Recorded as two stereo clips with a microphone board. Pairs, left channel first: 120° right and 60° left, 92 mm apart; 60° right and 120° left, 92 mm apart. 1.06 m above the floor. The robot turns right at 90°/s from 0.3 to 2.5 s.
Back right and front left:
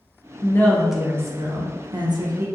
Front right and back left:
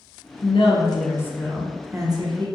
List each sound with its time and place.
0.4 s a woman speaking: 70° right, 0.6 m; by 2.5 s 115° left, 0.6 m